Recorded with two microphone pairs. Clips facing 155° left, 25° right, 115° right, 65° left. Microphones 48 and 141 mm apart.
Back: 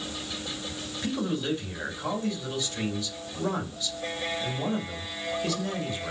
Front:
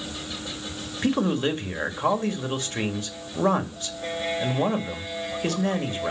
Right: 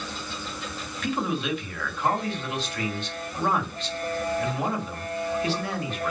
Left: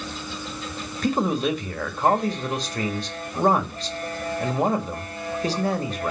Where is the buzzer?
I don't hear a buzzer.